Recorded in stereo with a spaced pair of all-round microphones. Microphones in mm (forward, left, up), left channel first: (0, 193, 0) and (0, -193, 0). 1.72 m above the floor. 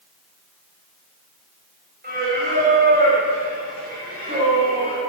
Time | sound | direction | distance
2.0 | singing | 25° right (ahead or behind) | 6.5 m